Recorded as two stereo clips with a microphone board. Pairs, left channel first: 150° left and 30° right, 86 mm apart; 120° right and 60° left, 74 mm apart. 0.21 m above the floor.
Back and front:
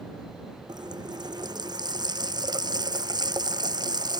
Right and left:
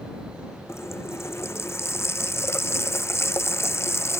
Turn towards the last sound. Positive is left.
turn(degrees=-65)